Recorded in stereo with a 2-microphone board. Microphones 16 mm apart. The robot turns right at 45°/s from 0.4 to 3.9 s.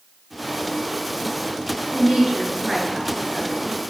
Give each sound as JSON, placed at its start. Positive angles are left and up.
{"t": 1.9, "sound": "a woman speaking", "azimuth_deg": -100, "distance_m": 1.6}